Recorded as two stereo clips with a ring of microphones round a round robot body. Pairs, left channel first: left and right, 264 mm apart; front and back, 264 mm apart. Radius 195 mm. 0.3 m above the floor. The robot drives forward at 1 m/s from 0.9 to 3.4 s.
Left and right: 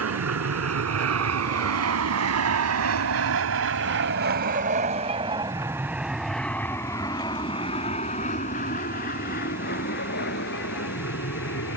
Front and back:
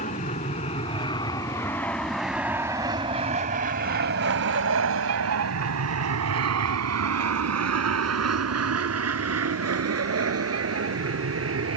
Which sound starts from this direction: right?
An aircraft, at 0.0 s.